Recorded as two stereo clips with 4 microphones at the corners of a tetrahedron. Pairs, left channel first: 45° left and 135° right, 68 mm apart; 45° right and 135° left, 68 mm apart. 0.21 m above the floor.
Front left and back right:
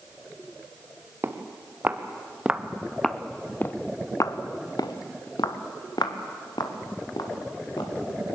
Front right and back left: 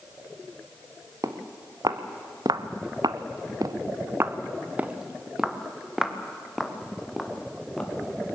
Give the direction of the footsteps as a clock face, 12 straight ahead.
6 o'clock.